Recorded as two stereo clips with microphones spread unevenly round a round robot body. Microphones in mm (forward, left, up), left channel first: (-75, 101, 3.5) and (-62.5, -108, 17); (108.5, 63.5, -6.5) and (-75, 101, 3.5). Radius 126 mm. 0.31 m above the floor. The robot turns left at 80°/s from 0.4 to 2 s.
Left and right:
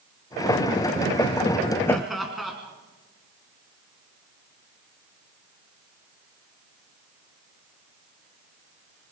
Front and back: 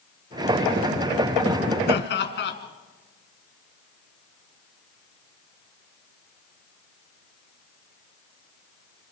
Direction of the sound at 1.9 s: 15° left.